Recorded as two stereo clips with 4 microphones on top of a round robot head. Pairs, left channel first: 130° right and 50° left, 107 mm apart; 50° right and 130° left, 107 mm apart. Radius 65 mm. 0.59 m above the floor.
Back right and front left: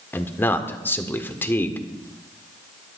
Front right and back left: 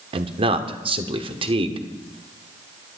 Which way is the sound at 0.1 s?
160° left.